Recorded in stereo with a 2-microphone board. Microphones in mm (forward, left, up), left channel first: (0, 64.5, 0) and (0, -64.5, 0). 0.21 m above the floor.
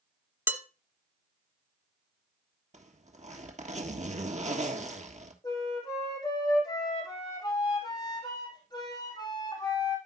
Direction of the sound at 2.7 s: 65° right (ahead or behind).